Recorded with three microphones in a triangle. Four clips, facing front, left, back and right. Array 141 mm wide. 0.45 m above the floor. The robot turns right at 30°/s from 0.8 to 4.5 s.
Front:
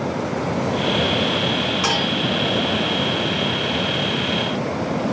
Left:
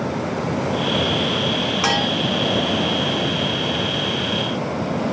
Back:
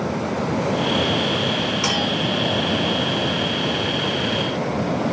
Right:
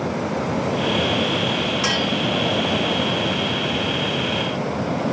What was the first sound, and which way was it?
A clink, 70° left.